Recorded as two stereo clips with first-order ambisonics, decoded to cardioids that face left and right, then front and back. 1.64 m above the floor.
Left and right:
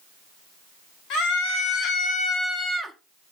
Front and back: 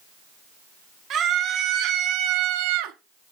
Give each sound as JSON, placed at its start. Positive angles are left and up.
{"t": 1.1, "sound": "a scream", "azimuth_deg": 125, "distance_m": 2.0}